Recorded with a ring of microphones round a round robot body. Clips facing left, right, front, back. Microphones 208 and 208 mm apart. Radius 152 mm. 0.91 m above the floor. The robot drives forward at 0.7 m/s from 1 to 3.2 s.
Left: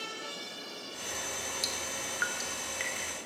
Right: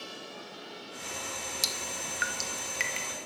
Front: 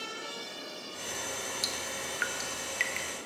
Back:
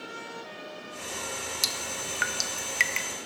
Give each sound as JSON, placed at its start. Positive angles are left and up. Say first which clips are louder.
{"t": 1.6, "sound": "dripping", "louder": "even, back 1 dB", "azimuth_deg": -135, "distance_m": 1.2}